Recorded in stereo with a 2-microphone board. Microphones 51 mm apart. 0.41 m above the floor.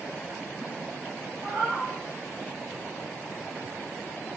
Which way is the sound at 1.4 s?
35° right (ahead or behind).